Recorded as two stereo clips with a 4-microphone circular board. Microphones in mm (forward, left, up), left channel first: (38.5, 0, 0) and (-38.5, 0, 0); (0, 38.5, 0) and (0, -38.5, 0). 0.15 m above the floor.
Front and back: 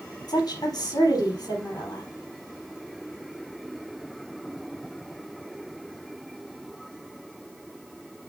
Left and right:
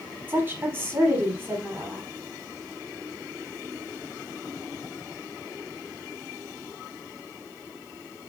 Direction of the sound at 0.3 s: 30° right.